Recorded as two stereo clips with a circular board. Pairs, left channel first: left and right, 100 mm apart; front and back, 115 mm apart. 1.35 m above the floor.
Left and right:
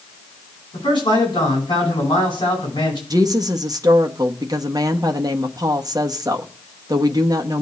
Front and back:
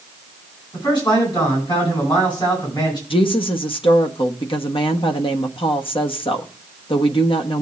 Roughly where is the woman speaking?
Ahead right.